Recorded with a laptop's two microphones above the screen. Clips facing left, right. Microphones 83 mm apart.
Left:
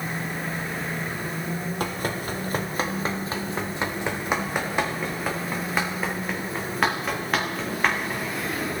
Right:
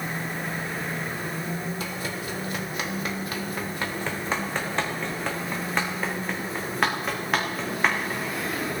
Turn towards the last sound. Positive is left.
turn(degrees=-5)  # may be behind; listen again after turning